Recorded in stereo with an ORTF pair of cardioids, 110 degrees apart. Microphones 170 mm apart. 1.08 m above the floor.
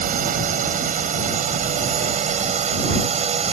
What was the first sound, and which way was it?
A drone, 50° right.